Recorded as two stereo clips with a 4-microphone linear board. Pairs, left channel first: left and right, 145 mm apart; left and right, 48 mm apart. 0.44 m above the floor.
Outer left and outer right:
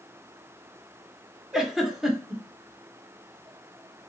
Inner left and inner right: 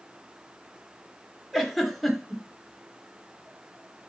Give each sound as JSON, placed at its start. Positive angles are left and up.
{"t": 1.5, "sound": "a giggle", "side_deg": -5, "distance_m": 0.7}